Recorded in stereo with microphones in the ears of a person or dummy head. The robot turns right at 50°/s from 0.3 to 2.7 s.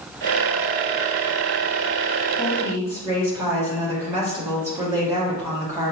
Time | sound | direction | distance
2.4 | a woman speaking | 5° left (ahead or behind) | 1.9 m